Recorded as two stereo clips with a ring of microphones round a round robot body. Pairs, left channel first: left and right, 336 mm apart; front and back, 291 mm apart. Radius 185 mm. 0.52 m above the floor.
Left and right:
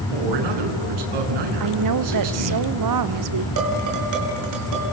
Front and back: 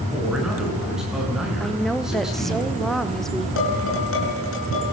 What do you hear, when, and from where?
0.1 s a man speaking: 90° right, 6 m
1.6 s a woman speaking: 90° right, 1.5 m
3.6 s dishes clattering: 55° right, 6 m